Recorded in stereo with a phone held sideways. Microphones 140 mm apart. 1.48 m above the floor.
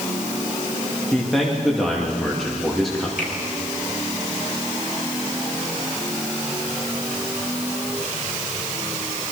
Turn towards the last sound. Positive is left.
turn(degrees=80)